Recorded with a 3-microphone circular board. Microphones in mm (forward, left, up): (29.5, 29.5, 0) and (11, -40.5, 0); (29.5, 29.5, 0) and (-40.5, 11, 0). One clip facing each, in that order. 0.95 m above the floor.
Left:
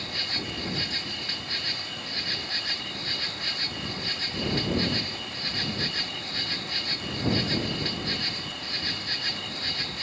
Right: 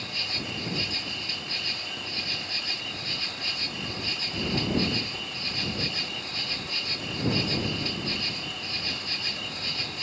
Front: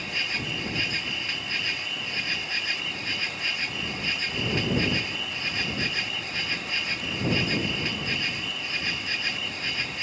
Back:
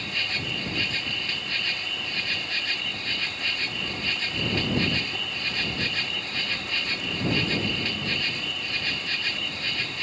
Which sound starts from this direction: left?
An insect, at 0.0 s.